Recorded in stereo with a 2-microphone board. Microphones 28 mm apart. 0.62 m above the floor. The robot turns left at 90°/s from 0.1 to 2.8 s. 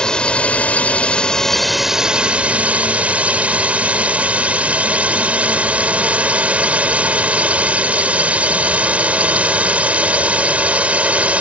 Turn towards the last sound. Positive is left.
turn(degrees=-100)